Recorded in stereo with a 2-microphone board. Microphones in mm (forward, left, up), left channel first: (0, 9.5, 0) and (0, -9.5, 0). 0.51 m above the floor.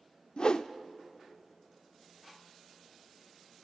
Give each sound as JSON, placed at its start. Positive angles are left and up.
{"t": 0.4, "sound": "a whoosh", "side_deg": 50, "distance_m": 0.5}